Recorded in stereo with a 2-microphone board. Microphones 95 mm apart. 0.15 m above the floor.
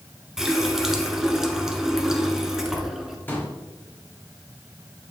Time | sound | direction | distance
0.4 | a running tap | 5° right (ahead or behind) | 1.2 m
3.3 | a pop | 20° left (ahead or behind) | 3 m